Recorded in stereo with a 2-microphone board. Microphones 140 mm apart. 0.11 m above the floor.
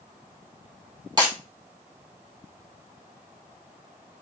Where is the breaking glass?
30° right (ahead or behind), 1.9 m.